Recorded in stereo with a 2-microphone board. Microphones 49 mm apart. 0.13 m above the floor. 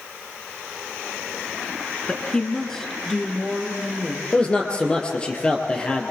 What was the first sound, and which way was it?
A woman speaking, 20° left (ahead or behind).